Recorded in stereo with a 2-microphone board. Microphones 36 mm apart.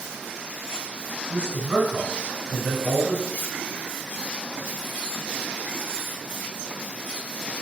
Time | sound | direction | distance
1.3 | a man speaking | 35° right (ahead or behind) | 1.6 m
3.3 | cutlery clinking | 65° left (ahead or behind) | 1.8 m